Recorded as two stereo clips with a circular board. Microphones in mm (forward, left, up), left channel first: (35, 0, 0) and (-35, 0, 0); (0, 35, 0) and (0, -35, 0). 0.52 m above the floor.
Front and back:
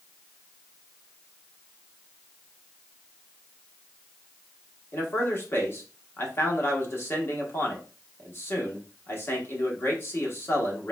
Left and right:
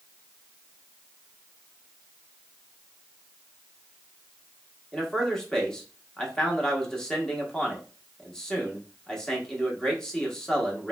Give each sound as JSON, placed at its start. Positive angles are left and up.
{"t": 4.9, "sound": "a man speaking", "azimuth_deg": 20, "distance_m": 0.9}